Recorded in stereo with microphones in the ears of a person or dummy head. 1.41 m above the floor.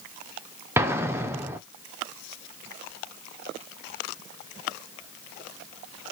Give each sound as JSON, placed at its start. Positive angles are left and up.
{"t": 0.8, "sound": "an explosion", "side_deg": -15, "distance_m": 0.6}